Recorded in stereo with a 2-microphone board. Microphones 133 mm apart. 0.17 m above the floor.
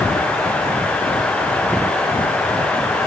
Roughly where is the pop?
No pop in this recording.